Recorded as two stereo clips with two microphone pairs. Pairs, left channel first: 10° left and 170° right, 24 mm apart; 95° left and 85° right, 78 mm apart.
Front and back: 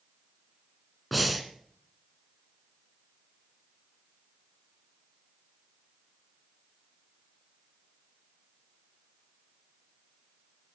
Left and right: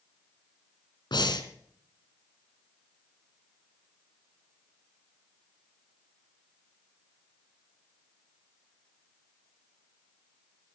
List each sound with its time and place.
1.1 s breathing: 100° left, 1.6 m